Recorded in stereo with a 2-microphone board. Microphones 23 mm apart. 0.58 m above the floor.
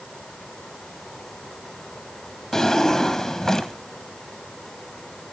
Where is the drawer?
25° left (ahead or behind), 2.5 m.